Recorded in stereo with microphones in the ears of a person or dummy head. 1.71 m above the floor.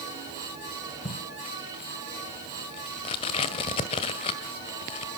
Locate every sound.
1.1 s tape being pulled: 25° left (ahead or behind), 1.6 m